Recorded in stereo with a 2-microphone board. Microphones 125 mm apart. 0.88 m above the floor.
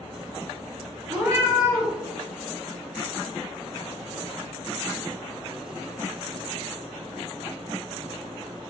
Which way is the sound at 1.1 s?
25° right (ahead or behind).